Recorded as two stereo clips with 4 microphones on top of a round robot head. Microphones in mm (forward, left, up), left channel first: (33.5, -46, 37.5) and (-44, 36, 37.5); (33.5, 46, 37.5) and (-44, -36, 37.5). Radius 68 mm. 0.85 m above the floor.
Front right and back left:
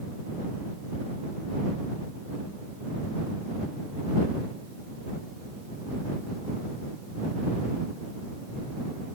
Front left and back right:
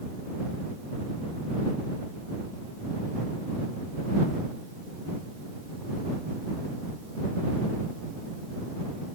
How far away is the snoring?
I don't hear snoring.